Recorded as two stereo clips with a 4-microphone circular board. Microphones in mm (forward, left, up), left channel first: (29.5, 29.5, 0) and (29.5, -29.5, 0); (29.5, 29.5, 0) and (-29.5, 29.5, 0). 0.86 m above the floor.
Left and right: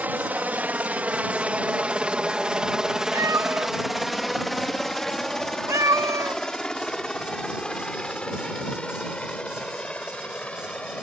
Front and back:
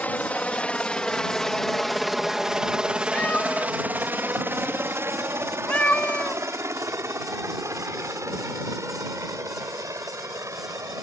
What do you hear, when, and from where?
0.0 s a helicopter: 45° right; by 11.0 s 160° left
3.1 s a cat meowing: 65° right